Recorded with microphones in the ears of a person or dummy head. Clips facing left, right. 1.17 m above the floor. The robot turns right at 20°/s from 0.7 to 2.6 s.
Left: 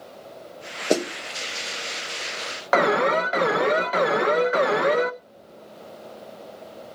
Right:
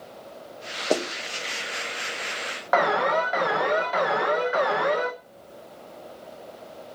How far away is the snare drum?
About 0.6 m.